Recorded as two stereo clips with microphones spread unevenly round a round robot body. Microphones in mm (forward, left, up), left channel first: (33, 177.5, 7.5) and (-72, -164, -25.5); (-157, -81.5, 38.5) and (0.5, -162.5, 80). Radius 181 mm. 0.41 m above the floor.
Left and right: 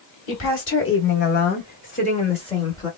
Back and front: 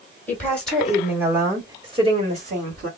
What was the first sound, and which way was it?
A woman speaking, 105° left.